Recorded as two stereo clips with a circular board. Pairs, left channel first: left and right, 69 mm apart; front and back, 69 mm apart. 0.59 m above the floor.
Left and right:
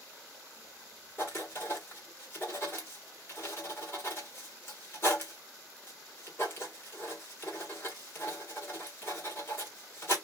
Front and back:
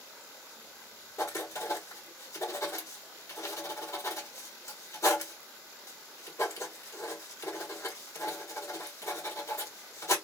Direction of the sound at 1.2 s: 40° left.